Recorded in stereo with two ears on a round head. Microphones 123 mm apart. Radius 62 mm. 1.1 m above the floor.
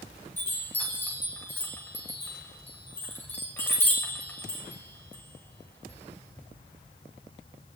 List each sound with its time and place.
0.4 s a chime: 15° left (ahead or behind), 6.5 m